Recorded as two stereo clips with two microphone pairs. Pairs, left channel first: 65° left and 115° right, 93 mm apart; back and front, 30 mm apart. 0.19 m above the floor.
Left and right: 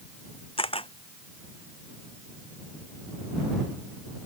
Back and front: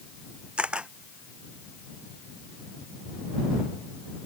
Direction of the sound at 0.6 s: 55° left.